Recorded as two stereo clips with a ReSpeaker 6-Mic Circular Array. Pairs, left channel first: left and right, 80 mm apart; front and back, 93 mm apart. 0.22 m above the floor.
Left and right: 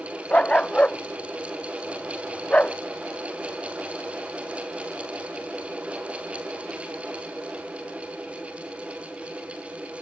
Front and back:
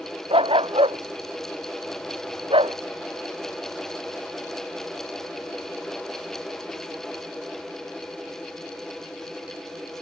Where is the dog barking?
165° left.